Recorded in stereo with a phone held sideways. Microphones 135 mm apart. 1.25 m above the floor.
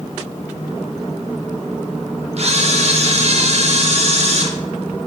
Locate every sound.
2.4 s a camera shutter: 55° right (ahead or behind), 0.6 m